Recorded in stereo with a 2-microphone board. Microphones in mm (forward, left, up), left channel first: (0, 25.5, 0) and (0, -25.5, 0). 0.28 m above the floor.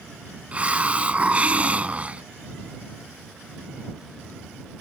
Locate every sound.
0.5 s a hiss: 25° right (ahead or behind)